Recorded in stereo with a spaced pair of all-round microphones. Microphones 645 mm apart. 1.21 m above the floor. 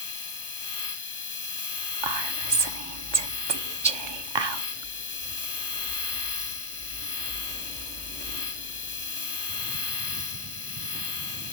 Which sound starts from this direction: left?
A machine running, at 0.0 s.